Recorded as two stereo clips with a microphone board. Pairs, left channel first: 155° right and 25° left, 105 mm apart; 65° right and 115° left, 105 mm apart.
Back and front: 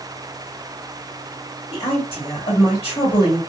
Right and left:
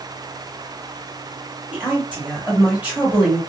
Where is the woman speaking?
170° right, 1.7 m.